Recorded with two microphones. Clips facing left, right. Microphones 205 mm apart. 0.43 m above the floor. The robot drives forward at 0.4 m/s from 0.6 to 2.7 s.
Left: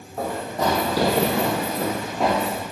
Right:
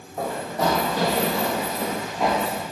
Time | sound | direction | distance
0.2 | running footsteps | 5° left (ahead or behind) | 1.4 m